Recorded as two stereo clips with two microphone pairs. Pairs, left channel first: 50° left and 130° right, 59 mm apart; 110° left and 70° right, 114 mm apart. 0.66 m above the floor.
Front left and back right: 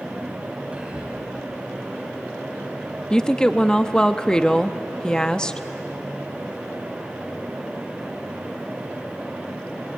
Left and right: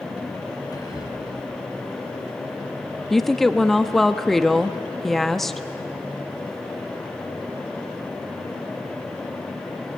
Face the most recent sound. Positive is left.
turn(degrees=25)